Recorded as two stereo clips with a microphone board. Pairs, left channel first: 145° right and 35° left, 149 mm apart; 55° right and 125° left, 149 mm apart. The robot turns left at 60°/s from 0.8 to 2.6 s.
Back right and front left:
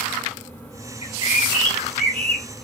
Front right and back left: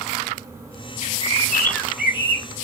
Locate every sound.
1.0 s a bird: 90° right, 0.8 m; by 2.5 s straight behind, 0.8 m